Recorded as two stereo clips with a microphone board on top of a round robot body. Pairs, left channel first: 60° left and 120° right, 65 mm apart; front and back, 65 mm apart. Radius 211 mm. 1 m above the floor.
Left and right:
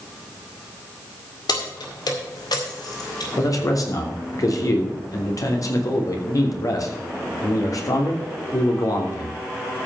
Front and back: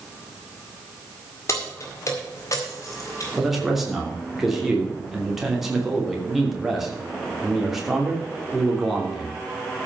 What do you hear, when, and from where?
1.5 s keys jangling: 45° left, 2.5 m; by 3.3 s 40° left, 3.5 m
3.4 s a man speaking: 95° left, 3 m